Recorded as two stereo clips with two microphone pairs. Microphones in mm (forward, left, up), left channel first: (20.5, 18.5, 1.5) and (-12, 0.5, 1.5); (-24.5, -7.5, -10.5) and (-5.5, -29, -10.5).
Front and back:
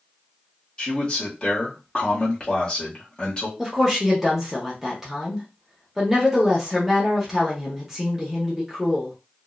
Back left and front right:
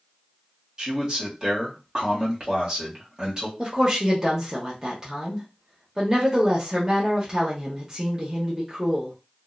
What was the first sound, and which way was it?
A man speaking, 5° right.